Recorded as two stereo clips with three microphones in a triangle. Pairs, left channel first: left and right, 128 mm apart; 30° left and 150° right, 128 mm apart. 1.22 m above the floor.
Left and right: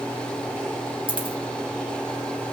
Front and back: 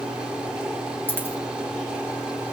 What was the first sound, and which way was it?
A dropped coin, 45° right.